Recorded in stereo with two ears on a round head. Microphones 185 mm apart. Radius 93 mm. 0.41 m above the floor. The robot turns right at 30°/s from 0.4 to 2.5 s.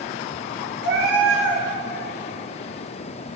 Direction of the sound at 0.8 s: 60° right (ahead or behind).